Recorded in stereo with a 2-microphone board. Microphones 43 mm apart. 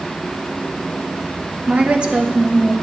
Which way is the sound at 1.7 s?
35° right (ahead or behind).